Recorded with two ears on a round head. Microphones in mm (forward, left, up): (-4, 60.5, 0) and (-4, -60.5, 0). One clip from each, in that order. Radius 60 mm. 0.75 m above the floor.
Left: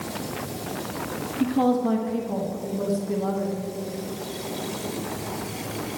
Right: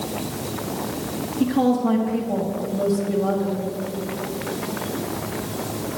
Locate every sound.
1.4 s a woman speaking: 10° left (ahead or behind), 0.9 m